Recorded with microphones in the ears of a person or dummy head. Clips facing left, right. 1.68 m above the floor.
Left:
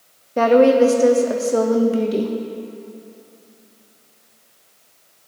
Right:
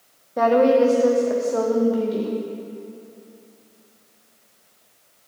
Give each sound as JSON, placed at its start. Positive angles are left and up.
{"t": 0.4, "sound": "a woman speaking", "side_deg": 40, "distance_m": 0.6}